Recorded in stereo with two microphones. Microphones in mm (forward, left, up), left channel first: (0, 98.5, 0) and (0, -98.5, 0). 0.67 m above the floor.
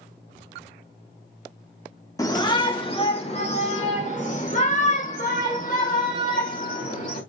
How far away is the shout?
About 1.0 m.